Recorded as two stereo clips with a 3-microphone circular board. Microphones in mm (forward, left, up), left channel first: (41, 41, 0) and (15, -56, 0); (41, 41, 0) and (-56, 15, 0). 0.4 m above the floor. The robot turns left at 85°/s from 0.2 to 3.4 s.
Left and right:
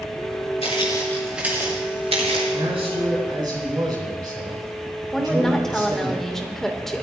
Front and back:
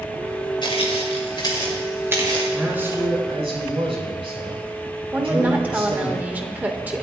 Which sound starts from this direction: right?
A man speaking, at 2.5 s.